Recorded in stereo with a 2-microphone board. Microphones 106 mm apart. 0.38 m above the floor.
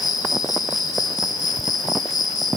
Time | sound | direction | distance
0.0 | an insect | 35° left (ahead or behind) | 2 m